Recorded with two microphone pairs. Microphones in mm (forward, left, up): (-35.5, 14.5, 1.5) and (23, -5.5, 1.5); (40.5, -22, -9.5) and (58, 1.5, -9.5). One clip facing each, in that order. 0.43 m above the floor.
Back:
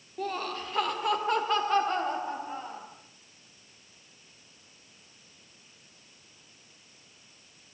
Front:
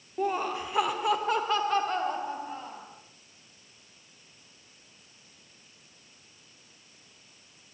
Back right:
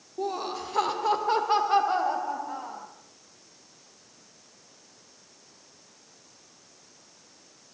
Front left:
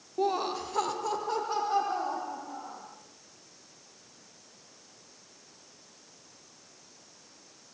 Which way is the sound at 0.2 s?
35° left.